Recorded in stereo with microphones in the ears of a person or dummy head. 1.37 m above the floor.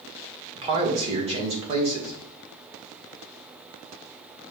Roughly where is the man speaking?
Right.